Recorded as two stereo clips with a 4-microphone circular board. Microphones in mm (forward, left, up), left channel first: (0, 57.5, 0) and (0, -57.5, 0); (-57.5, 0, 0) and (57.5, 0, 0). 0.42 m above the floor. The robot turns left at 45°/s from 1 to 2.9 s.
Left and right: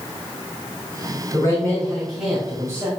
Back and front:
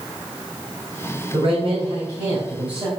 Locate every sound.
1.3 s a man speaking: 35° left, 2.5 m; by 2.9 s 35° right, 2.5 m